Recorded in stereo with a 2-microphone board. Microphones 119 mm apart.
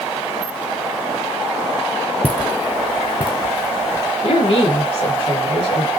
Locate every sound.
2.2 s footsteps: 10° left (ahead or behind), 0.6 m; by 4.1 s 55° left (ahead or behind), 1.4 m
4.2 s a woman speaking: 60° left (ahead or behind), 3 m